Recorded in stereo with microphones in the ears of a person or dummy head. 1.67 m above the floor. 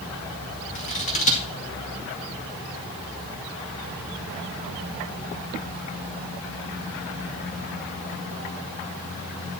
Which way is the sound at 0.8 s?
35° left (ahead or behind).